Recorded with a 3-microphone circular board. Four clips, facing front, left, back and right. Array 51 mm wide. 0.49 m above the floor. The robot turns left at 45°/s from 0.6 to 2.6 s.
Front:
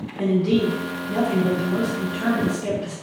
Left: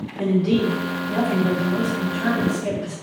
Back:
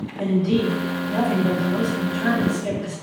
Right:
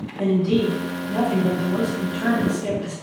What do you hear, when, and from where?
0.2 s a man speaking: 35° left, 1.5 m; by 2.9 s 55° right, 1.5 m